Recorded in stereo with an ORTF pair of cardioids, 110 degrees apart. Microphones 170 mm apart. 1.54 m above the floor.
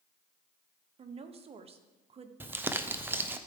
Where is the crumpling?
10° right, 0.6 m.